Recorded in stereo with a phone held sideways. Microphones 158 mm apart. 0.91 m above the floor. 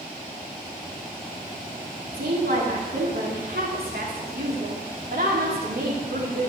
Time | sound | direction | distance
2.1 | a woman speaking | 75° right (ahead or behind) | 2.5 m